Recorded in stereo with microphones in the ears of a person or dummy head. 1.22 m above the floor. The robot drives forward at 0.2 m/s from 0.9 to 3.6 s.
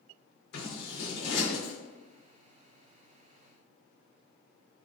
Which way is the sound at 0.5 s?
60° left (ahead or behind).